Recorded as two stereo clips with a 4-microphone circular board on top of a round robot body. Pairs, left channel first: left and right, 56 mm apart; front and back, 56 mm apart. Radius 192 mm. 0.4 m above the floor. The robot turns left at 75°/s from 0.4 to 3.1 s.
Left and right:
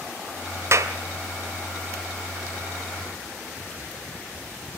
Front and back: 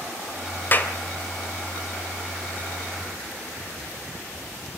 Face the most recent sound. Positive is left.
turn(degrees=130)